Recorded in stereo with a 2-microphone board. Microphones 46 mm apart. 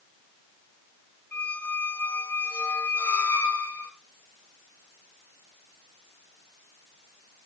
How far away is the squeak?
About 1.6 m.